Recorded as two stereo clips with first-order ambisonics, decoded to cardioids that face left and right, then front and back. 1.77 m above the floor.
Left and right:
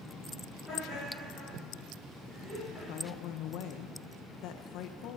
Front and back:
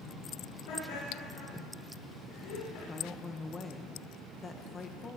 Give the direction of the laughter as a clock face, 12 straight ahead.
12 o'clock.